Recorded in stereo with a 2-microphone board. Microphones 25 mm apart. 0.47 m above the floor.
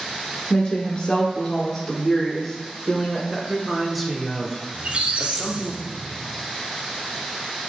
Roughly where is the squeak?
Right.